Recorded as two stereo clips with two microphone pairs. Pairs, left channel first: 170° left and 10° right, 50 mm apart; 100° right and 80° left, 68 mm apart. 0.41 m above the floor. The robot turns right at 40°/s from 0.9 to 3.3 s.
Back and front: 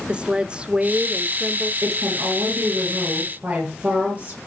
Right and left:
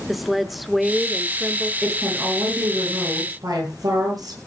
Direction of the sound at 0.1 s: 5° left.